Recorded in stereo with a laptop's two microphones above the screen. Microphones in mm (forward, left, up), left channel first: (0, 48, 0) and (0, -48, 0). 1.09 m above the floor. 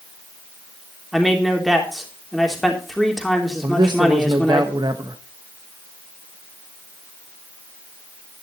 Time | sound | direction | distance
1.1 | a man speaking | centre (ahead or behind) | 3.5 m
3.6 | a man speaking | 50° right (ahead or behind) | 1.0 m